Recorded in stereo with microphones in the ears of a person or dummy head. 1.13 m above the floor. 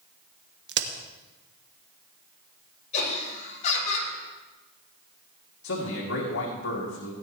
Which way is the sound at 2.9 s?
45° left (ahead or behind).